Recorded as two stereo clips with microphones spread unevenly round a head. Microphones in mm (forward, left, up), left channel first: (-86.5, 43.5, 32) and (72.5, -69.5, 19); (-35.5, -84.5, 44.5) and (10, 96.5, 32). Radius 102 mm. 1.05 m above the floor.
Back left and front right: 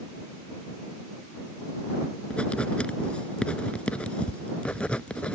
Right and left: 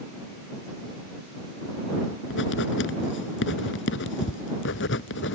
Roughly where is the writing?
Behind right.